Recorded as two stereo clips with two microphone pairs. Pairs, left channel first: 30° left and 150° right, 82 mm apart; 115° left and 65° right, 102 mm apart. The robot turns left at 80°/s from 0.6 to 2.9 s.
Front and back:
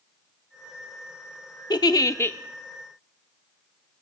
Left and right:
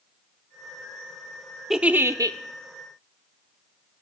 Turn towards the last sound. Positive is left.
turn(degrees=-75)